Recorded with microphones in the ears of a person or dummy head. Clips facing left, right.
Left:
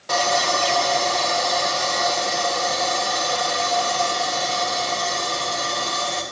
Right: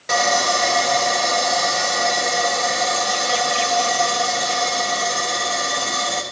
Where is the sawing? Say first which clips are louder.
Right 2 dB; 20° right (ahead or behind), 1.7 m.